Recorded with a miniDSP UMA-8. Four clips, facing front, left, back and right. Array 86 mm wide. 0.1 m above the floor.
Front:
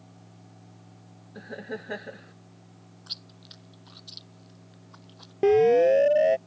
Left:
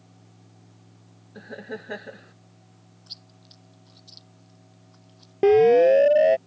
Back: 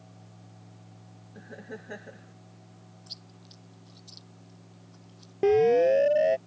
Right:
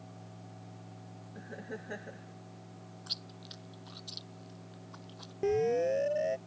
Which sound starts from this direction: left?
A siren, at 5.4 s.